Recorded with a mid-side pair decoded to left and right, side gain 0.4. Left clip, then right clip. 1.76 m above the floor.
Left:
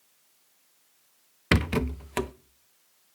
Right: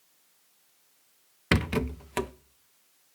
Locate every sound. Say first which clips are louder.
1.5 s a rattle: left 1 dB; 10° left, 0.5 m